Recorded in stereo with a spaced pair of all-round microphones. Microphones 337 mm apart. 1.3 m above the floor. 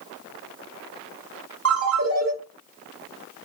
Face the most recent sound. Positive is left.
turn(degrees=-45)  # may be behind; listen again after turning